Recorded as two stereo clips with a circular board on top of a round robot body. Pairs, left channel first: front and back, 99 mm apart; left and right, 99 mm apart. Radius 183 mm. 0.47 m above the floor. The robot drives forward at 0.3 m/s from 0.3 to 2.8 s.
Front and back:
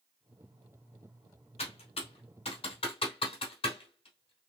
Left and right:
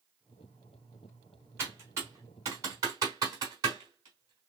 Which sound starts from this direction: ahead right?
Typing on a keyboard, at 1.6 s.